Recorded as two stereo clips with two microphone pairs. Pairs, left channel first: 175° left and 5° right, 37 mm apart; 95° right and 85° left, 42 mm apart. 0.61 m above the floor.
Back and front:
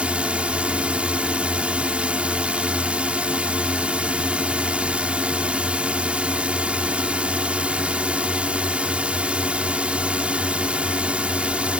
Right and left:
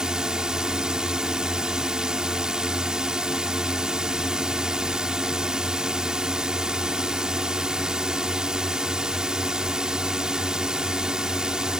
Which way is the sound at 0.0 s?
20° left.